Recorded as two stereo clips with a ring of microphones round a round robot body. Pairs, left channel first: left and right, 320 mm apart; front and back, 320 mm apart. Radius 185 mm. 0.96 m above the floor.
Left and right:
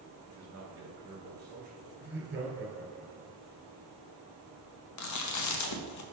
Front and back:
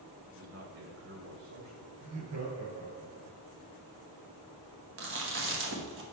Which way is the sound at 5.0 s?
125° left.